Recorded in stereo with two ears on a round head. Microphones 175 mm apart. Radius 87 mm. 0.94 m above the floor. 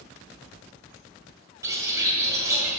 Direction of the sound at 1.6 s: 15° right (ahead or behind).